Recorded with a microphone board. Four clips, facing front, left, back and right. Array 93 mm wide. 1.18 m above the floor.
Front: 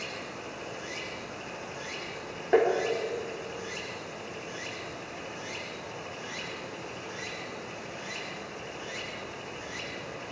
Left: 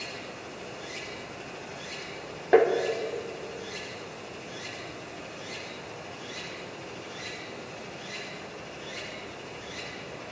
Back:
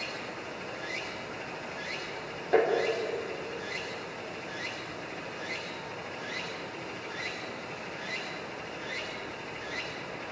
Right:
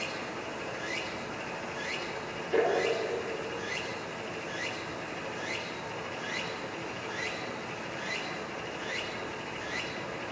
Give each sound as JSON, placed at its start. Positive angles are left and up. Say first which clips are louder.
{"t": 0.0, "sound": "running water", "louder": "right 3 dB, back 1 dB", "azimuth_deg": -75, "distance_m": 7.0}
{"t": 2.5, "sound": "tapping", "louder": "left 7 dB, front 2 dB", "azimuth_deg": 75, "distance_m": 3.5}